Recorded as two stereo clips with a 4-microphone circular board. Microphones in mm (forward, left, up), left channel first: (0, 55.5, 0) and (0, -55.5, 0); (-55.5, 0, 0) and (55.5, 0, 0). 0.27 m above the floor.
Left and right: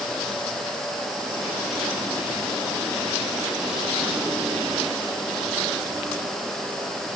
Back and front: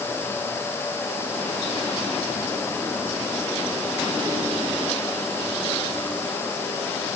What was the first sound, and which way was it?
Only background noise.